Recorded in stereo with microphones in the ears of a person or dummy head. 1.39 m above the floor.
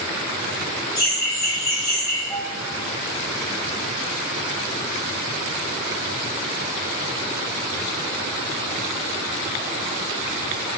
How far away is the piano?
About 0.5 m.